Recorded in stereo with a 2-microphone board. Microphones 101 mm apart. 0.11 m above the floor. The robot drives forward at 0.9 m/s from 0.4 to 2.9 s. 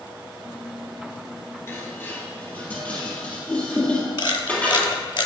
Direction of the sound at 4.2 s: 60° left (ahead or behind).